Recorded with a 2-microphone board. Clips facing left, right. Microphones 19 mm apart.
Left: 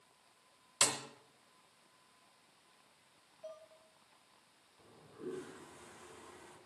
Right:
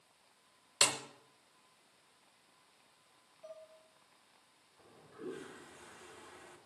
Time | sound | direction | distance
0.8 | a snare drum | 80° right | 1.1 m
3.4 | dishes clattering | 10° left (ahead or behind) | 2.5 m
4.8 | a toilet flushing | 20° right (ahead or behind) | 1.7 m